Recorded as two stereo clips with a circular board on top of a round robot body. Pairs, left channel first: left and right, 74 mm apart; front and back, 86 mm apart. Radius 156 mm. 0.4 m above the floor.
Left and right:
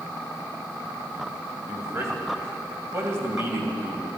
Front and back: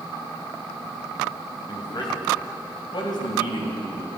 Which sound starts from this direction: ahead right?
A man speaking, at 1.7 s.